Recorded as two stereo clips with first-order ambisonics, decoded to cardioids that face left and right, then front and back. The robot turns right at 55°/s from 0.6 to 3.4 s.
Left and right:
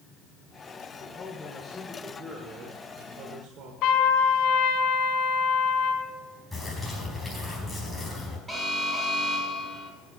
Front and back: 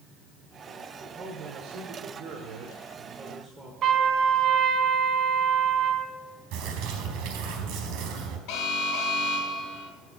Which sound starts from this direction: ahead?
An alarm, at 8.5 s.